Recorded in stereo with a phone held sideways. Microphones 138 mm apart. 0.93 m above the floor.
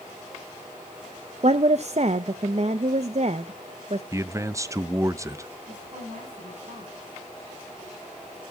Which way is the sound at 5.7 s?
55° right (ahead or behind).